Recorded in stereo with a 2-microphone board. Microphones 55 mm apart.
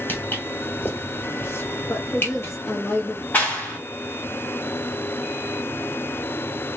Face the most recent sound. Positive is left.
turn(degrees=30)  # may be behind; listen again after turning